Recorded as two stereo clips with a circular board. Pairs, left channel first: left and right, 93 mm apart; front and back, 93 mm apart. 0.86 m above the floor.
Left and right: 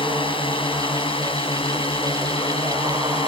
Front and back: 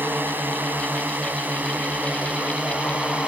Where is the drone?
110° left; by 3.3 s 105° left.